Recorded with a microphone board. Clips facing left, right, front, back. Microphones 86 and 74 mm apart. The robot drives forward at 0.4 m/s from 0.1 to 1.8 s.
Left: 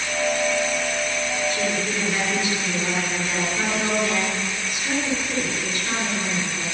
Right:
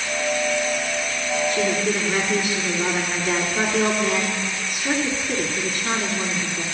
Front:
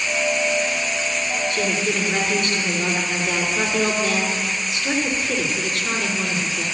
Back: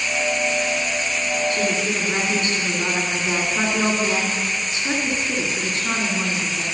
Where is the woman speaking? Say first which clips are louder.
Right 3 dB, even; 120° right, 3 m.